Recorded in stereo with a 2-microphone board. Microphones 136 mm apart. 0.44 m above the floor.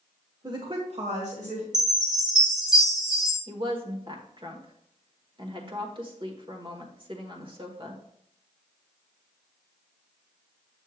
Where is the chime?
5° right (ahead or behind), 3.5 m.